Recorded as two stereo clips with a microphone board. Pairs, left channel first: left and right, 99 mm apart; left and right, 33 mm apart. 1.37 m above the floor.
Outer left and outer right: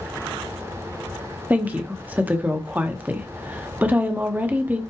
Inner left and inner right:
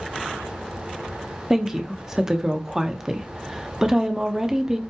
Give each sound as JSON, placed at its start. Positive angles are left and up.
{"t": 1.5, "sound": "a woman speaking", "side_deg": -15, "distance_m": 1.4}